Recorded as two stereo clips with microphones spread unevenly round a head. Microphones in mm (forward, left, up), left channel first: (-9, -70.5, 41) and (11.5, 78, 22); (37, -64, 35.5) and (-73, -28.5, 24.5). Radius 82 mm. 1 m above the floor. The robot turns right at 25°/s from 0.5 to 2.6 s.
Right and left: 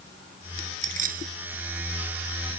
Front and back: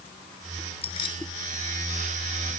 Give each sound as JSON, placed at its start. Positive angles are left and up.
{"t": 0.8, "sound": "keys jangling", "azimuth_deg": 35}